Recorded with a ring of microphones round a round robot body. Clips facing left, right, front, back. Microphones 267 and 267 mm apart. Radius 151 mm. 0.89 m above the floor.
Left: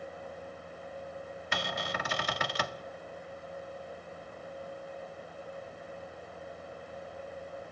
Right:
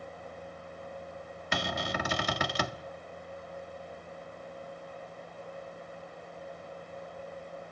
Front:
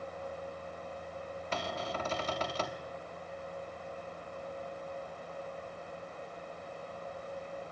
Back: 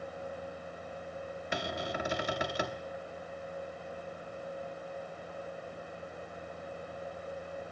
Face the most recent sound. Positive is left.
turn(degrees=-100)